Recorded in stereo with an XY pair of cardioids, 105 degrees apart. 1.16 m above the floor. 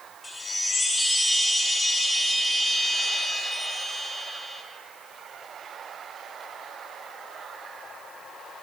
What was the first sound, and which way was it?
A chime, 20° left.